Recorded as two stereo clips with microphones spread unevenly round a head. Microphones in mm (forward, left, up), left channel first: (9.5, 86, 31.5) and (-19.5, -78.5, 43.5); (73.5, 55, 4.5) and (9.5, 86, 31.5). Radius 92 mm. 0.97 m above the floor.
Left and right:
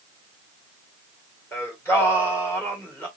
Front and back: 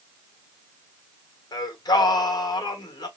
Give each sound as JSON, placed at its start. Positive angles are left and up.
{"t": 1.5, "sound": "singing", "azimuth_deg": 5, "distance_m": 1.8}